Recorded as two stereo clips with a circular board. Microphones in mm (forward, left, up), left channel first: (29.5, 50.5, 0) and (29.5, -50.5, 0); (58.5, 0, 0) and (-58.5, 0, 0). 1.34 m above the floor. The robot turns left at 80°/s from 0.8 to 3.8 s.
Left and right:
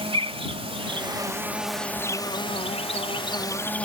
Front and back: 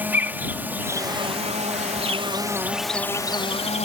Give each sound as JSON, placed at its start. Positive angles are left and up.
{"t": 0.0, "sound": "an insect", "azimuth_deg": -105}